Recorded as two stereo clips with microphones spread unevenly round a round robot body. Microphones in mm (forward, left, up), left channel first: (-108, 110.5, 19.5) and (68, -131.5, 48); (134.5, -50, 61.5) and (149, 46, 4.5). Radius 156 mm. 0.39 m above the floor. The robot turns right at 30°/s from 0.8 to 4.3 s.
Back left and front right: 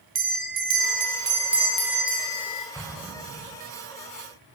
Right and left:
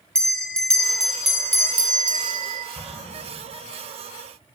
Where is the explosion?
150° right, 2.5 m; by 3.6 s 125° right, 2.5 m.